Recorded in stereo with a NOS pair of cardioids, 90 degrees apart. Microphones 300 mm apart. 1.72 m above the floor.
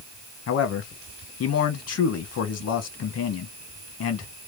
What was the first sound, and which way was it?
A man speaking, 55° left.